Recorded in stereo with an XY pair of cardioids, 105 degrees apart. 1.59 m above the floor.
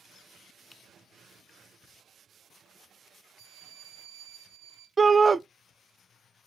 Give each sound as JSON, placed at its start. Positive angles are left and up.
{"t": 0.7, "sound": "typing on a keyboard", "azimuth_deg": 10, "distance_m": 0.7}
{"t": 3.4, "sound": "a violin", "azimuth_deg": -70, "distance_m": 2.0}
{"t": 5.0, "sound": "a shout", "azimuth_deg": -25, "distance_m": 0.6}